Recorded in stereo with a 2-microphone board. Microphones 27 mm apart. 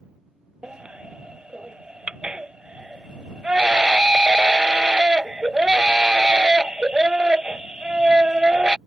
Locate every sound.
0.6 s a baby crying: 35° right (ahead or behind)